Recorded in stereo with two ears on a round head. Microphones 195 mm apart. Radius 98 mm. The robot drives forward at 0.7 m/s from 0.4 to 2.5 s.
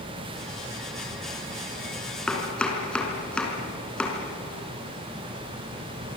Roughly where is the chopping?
Centre.